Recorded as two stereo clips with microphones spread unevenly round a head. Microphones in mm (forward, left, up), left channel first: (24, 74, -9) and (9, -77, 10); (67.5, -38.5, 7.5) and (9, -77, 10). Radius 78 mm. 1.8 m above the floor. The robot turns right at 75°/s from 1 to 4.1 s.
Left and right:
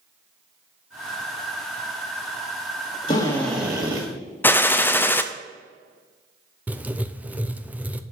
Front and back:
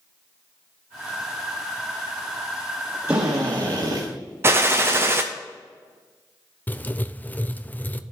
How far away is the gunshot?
About 0.5 m.